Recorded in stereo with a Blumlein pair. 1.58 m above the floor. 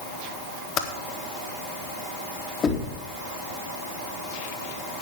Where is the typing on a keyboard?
35° left, 1.5 m.